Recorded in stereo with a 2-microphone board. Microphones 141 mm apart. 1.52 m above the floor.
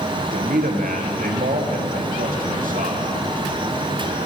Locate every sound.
0.2 s a man speaking: 80° right, 1.2 m; by 3.1 s 75° right (ahead or behind), 2.5 m